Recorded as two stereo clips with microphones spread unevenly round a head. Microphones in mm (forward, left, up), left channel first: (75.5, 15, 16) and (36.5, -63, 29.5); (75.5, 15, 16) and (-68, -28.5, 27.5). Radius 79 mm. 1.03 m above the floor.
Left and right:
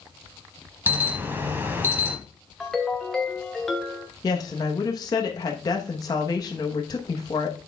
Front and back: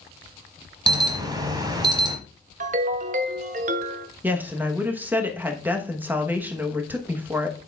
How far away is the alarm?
About 1.2 m.